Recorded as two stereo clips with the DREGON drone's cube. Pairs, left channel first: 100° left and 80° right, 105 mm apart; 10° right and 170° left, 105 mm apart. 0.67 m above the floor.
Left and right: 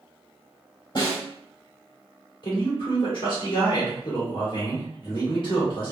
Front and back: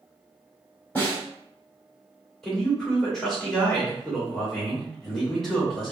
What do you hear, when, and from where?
0.9 s a snare drum: 60° left, 2.0 m
2.4 s a man speaking: 75° left, 2.0 m